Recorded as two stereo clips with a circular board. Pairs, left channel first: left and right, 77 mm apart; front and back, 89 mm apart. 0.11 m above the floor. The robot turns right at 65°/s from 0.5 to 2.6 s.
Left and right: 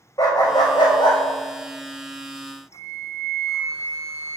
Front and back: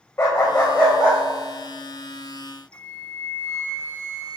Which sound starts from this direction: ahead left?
A dog barking, at 0.2 s.